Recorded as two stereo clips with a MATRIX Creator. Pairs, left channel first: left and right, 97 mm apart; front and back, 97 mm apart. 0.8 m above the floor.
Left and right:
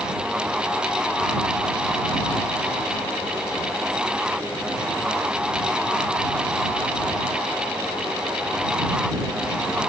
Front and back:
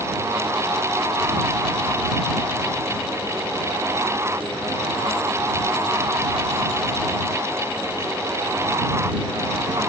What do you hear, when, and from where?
Only background noise.